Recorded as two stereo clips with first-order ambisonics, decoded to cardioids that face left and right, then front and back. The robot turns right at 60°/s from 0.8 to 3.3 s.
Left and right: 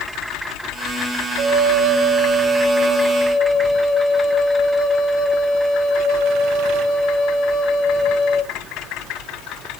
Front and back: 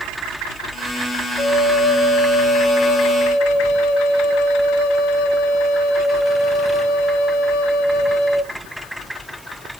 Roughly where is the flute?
Right.